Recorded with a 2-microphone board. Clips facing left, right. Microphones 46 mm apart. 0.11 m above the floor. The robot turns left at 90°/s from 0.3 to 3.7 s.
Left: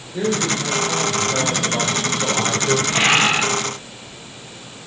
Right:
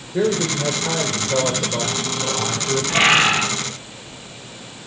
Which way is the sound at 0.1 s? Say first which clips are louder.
Right 1 dB; 40° right.